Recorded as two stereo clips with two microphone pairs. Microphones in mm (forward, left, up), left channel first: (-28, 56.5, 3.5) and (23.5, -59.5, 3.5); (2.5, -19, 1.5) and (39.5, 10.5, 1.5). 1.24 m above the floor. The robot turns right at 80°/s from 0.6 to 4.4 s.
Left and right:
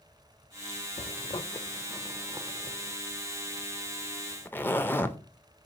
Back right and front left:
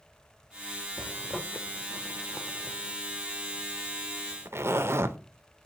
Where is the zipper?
130° left, 0.6 m; by 5.2 s 45° left, 0.6 m.